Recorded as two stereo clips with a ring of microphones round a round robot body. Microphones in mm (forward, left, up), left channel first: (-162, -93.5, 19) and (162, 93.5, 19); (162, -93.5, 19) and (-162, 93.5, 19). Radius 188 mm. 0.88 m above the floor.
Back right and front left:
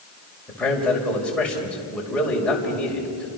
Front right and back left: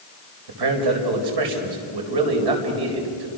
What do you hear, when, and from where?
0.5 s a man speaking: 125° left, 5 m